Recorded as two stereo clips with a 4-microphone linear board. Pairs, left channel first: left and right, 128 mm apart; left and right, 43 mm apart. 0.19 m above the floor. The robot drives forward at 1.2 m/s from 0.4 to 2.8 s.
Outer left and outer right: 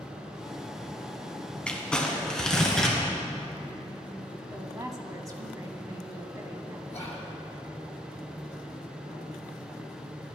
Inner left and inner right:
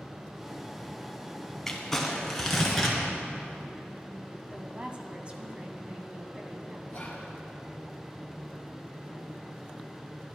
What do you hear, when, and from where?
1.7 s crumpling: 10° left (ahead or behind), 1.4 m; by 3.0 s 5° left (ahead or behind), 2.5 m
4.5 s a woman speaking: 25° right (ahead or behind), 1.1 m
6.9 s whispering: 25° left (ahead or behind), 1.4 m